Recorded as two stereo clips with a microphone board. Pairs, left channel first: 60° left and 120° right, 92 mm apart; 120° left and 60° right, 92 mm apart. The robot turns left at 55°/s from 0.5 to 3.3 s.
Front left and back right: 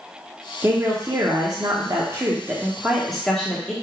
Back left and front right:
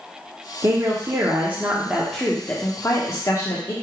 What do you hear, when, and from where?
0.6 s a woman speaking: 70° right, 0.7 m; by 3.7 s 140° left, 0.7 m